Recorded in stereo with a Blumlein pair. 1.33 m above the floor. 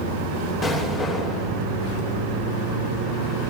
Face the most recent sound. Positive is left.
turn(degrees=20)